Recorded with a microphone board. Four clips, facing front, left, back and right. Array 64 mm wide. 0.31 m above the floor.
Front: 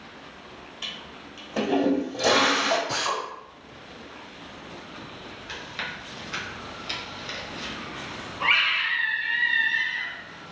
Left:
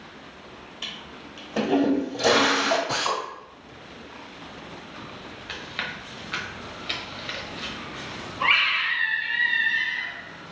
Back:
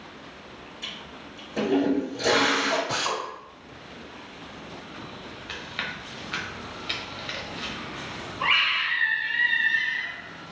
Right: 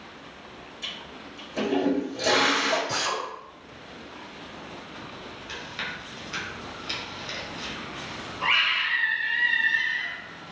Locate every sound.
0.8 s a toilet flushing: 50° left, 1.3 m
2.9 s a drill: 110° left, 1.6 m
5.5 s chewing: 130° left, 0.7 m
8.4 s a scream: 85° left, 1.0 m